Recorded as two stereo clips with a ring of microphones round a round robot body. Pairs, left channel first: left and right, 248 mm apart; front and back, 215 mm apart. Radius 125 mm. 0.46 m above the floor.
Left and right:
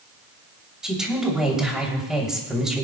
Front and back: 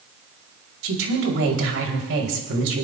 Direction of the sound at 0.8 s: 175° right.